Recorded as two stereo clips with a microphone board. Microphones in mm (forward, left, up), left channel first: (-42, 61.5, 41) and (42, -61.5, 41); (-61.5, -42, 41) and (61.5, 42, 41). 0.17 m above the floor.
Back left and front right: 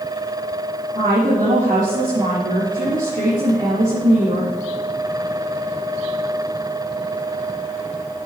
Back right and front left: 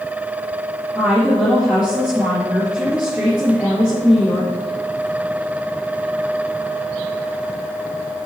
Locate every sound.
0.9 s a woman speaking: 45° right, 3.5 m